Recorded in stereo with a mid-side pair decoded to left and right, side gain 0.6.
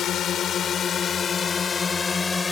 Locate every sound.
0.0 s a drone: 50° left; by 2.5 s 20° left